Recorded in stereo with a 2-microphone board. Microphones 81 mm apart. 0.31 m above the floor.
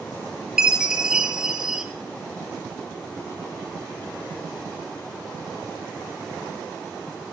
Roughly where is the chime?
Centre.